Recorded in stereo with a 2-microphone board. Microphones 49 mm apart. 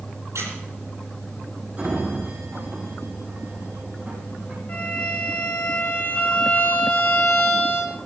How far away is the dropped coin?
I don't hear a dropped coin.